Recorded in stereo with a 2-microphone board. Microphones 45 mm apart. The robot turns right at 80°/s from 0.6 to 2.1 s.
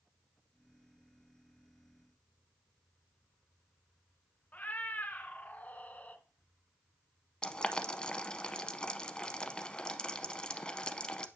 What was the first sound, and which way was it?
A cat meowing, 40° left (ahead or behind).